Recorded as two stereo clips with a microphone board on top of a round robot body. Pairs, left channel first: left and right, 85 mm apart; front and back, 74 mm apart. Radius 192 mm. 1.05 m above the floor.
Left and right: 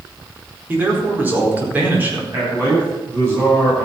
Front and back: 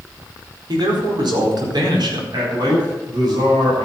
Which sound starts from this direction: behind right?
A man speaking, at 2.3 s.